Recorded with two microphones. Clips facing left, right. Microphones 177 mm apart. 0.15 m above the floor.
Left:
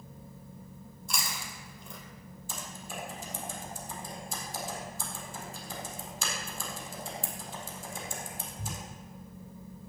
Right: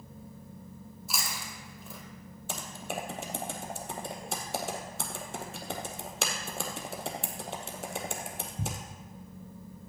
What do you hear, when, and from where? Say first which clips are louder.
1.1 s chewing: even; 5° right (ahead or behind), 3 m
2.5 s typing on a keyboard: right 6 dB; 75° right (ahead or behind), 1.4 m